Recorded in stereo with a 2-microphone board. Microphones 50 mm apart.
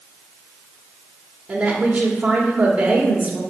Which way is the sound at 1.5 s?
25° right (ahead or behind).